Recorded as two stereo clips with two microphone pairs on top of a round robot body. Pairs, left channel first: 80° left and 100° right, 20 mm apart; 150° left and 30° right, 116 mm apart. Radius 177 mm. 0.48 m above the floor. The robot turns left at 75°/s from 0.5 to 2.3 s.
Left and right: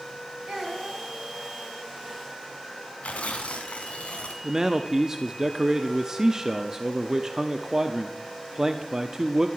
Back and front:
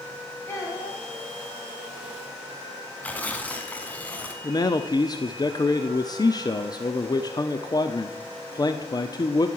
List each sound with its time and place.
0.5 s a child speaking: 140° right, 5 m; by 1.0 s straight behind, 5 m
3.0 s tearing paper: 70° left, 1.3 m
4.4 s a man speaking: 160° right, 1.0 m